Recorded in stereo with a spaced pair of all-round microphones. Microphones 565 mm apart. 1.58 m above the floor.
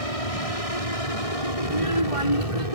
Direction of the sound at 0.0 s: 70° left (ahead or behind).